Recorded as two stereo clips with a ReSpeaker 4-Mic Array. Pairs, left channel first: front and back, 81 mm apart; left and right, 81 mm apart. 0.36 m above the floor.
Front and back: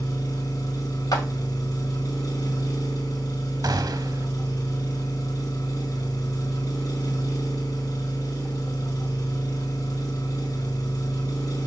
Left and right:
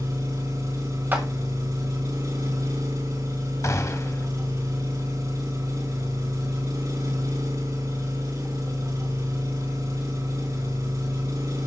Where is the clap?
30° right, 2 m.